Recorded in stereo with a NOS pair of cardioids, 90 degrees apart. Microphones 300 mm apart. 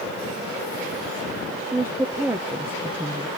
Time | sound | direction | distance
1.7 | a woman speaking | 5° right | 0.6 m